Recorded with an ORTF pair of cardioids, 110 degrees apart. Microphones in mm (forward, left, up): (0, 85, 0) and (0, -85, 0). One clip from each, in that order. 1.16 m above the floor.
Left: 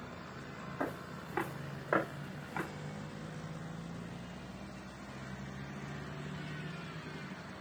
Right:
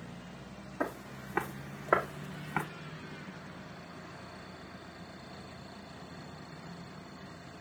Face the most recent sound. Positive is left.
turn(degrees=-50)